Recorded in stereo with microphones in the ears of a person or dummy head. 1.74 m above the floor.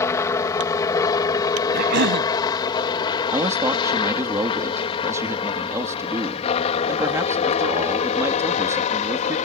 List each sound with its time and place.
0.0 s a helicopter: 15° left (ahead or behind); by 9.5 s 40° left (ahead or behind)
1.7 s a cough: 60° right (ahead or behind)
3.3 s a man speaking: 15° right (ahead or behind)